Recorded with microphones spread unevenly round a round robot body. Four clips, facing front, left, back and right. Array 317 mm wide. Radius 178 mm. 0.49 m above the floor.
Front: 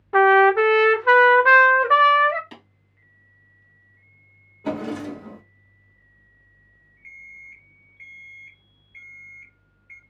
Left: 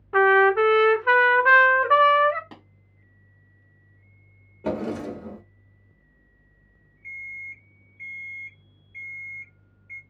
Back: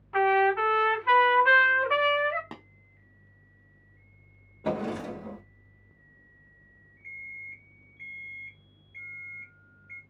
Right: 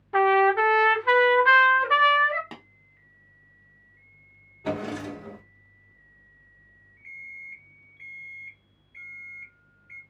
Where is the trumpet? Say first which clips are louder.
Left 2 dB, front 8 dB; 10° left, 0.6 m.